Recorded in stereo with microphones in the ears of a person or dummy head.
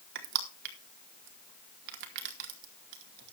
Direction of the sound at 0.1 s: 55° right (ahead or behind).